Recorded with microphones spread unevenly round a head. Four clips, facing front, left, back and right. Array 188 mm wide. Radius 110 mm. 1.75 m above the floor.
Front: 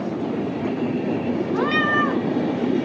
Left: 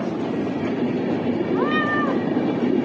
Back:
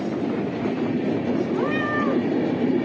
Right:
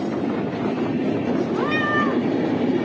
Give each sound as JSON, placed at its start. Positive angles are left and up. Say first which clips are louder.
{"t": 1.5, "sound": "a cat meowing", "louder": "left 1 dB, front 2 dB", "azimuth_deg": 35, "distance_m": 4.5}